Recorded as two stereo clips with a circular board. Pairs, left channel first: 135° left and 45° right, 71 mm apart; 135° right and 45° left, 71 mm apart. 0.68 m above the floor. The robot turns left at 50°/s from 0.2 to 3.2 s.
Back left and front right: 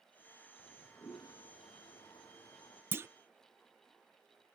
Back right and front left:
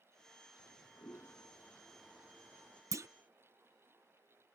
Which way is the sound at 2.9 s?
10° left.